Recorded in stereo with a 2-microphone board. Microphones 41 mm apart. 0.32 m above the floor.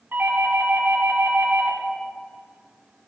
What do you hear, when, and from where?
0.1 s a doorbell: 50° right (ahead or behind), 4 m